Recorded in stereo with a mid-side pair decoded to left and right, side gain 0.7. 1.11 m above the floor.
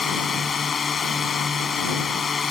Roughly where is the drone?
Ahead.